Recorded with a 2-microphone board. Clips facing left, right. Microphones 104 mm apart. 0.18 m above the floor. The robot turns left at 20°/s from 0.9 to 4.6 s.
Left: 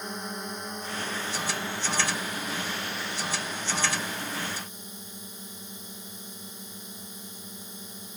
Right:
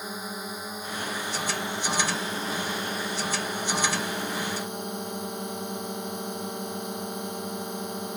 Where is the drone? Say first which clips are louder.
Even; 5° right; by 8.2 s 80° right.